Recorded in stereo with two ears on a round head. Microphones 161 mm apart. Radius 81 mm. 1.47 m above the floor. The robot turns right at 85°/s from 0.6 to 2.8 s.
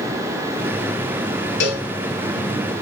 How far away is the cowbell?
About 0.9 m.